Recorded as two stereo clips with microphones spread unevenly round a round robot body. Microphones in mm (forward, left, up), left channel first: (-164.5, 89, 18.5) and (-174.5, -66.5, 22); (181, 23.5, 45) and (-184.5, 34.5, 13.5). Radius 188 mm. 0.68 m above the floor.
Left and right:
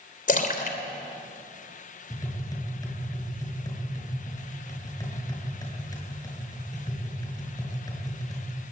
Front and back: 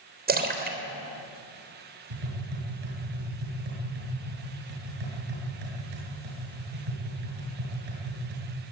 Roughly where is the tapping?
Behind left.